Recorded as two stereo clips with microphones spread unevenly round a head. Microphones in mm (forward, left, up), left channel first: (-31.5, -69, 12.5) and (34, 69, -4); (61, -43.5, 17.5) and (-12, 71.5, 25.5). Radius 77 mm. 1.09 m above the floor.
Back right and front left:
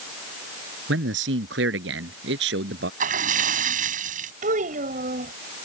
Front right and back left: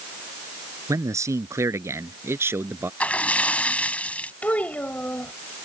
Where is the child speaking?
25° left.